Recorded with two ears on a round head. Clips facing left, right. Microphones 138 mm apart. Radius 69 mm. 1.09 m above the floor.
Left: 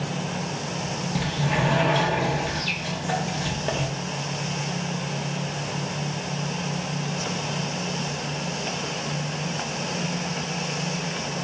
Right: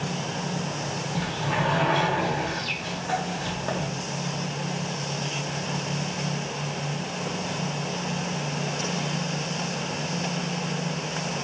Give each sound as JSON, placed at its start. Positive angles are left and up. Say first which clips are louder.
{"t": 1.1, "sound": "a sliding door", "louder": "left 2 dB", "side_deg": 20, "distance_m": 0.8}